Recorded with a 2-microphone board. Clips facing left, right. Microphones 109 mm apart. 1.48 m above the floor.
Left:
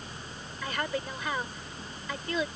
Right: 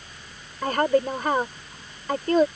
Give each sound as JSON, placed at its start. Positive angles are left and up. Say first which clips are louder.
{"t": 0.6, "sound": "a woman speaking", "louder": "right 12 dB", "side_deg": -50}